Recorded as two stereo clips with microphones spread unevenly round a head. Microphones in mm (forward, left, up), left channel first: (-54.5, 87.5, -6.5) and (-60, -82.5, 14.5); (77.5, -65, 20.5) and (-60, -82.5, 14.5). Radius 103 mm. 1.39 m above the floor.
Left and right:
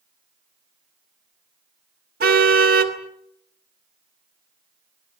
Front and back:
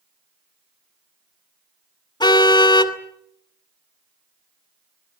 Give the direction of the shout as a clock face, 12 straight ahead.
No shout in this recording.